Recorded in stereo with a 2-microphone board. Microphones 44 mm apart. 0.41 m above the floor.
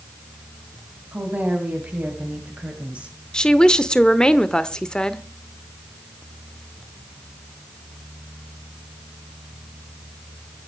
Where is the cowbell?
No cowbell in this recording.